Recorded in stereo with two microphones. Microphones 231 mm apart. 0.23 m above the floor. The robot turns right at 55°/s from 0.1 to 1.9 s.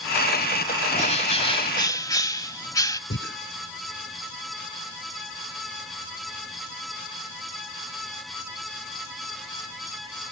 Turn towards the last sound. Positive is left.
turn(degrees=60)  # may be behind; listen again after turning